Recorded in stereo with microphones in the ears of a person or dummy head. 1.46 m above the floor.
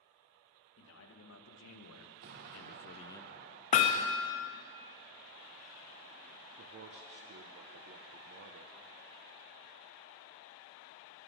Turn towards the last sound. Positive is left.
turn(degrees=-50)  # may be behind; listen again after turning